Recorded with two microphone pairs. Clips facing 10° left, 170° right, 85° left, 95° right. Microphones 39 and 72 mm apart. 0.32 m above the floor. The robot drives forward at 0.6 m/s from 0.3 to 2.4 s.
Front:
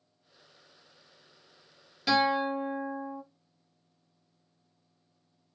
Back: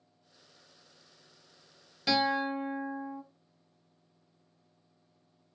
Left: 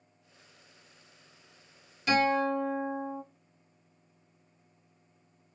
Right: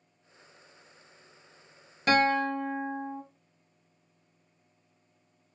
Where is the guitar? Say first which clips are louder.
Front 3 dB, right 1 dB; 85° right, 1.1 m; by 3.2 s 95° right, 1.1 m.